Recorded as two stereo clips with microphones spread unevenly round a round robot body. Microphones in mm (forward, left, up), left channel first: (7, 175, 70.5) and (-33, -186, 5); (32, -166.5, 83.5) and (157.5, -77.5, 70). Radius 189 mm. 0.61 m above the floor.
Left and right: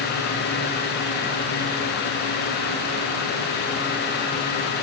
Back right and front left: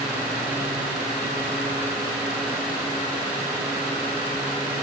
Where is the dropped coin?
No dropped coin in this recording.